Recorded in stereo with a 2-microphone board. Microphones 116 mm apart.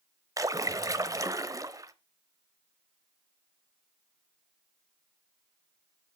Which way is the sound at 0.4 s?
30° right (ahead or behind).